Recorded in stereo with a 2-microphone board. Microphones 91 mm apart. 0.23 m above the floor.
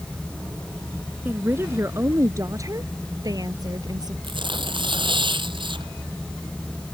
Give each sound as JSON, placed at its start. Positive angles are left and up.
{"t": 1.2, "sound": "a woman speaking", "side_deg": -20}
{"t": 4.2, "sound": "tearing paper", "side_deg": -60}